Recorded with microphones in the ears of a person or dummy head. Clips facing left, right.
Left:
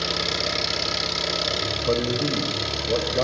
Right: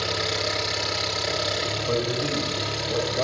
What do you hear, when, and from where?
0.0 s an engine running: 40° left (ahead or behind), 6 m
1.9 s a man speaking: 60° left (ahead or behind), 4.5 m